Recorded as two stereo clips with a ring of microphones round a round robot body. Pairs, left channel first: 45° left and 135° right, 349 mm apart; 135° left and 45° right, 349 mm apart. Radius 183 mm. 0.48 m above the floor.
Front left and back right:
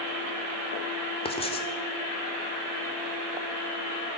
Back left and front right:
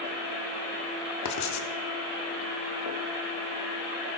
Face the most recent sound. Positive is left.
turn(degrees=115)